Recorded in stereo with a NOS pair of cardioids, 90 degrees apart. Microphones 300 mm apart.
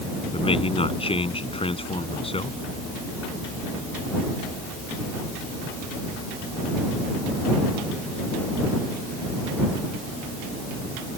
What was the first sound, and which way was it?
A man speaking, 20° left.